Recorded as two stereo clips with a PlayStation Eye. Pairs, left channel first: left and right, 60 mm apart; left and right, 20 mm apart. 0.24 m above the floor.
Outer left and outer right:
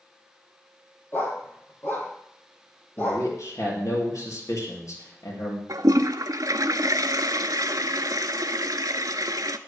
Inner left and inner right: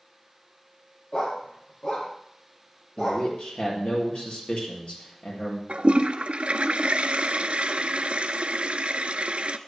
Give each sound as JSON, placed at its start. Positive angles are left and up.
{"t": 1.1, "sound": "a dog barking", "side_deg": 35, "distance_m": 4.0}
{"t": 3.0, "sound": "a man speaking", "side_deg": 65, "distance_m": 6.0}
{"t": 5.7, "sound": "a toilet flushing", "side_deg": -80, "distance_m": 0.8}